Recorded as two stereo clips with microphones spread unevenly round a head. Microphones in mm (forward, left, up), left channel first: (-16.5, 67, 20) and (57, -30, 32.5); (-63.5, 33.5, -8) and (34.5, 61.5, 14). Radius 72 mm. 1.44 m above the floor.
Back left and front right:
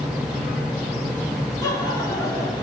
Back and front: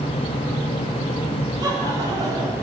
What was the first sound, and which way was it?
Laughter, 65° left.